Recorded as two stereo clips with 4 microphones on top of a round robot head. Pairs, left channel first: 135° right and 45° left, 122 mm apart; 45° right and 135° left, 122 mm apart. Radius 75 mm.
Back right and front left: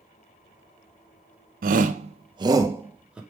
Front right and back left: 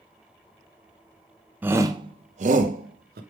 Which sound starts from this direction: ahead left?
A shout, at 1.6 s.